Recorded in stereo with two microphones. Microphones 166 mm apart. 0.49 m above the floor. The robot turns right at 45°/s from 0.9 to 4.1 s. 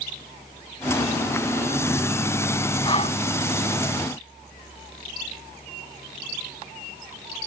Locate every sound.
2.8 s breathing: 30° left (ahead or behind); by 3.2 s 45° left (ahead or behind)